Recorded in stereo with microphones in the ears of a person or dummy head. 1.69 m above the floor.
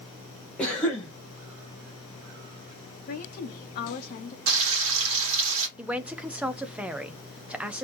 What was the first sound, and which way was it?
A cough, 5° left (ahead or behind).